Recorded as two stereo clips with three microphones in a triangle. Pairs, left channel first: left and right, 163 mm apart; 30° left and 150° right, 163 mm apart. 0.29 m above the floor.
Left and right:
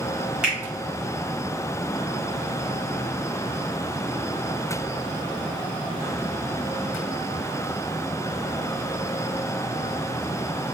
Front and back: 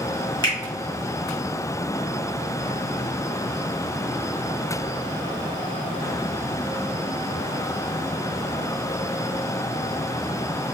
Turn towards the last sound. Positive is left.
turn(degrees=-10)